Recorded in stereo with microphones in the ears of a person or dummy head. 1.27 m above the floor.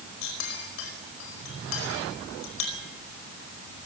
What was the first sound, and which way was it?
A clink, 75° left (ahead or behind).